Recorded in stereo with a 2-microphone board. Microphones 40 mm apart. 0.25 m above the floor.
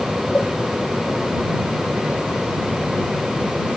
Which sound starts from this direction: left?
A cowbell, at 0.3 s.